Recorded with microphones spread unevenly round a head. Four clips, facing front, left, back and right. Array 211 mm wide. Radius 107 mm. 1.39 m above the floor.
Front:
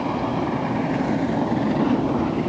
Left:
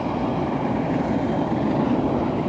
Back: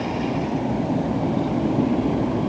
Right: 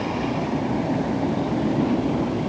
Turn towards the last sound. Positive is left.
No sound to turn to.